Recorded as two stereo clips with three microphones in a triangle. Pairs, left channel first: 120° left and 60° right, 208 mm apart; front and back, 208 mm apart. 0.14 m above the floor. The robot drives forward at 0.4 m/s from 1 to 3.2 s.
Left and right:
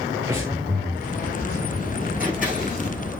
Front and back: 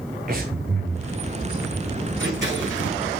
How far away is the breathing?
About 2.5 m.